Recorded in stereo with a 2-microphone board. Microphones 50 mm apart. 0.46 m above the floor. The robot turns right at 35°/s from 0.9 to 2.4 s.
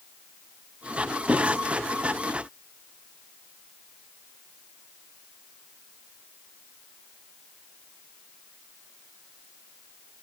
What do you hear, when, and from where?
1.3 s writing: 25° right (ahead or behind), 2.5 m; by 1.6 s 35° right (ahead or behind), 2.5 m